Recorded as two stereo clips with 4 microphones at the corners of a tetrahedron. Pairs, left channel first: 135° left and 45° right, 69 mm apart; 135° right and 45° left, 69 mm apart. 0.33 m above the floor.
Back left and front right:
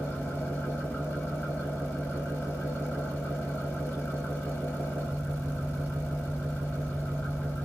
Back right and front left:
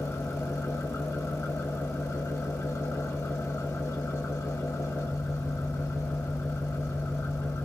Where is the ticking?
I don't hear ticking.